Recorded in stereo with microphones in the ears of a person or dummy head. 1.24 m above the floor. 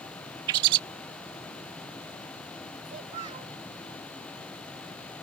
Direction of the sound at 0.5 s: 25° right (ahead or behind).